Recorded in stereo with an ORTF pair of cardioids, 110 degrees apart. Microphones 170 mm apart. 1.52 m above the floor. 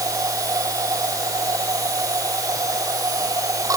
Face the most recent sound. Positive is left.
turn(degrees=-20)